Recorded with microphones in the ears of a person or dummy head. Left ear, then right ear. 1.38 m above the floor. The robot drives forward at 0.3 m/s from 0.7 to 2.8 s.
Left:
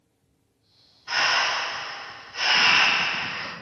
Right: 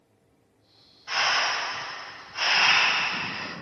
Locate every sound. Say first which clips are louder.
1.1 s breathing: left 2 dB; 10° right (ahead or behind), 1.9 m